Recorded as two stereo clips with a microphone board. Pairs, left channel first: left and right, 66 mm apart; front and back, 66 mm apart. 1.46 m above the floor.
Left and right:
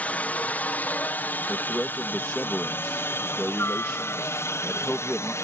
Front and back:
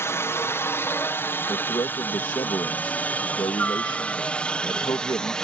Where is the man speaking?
10° left.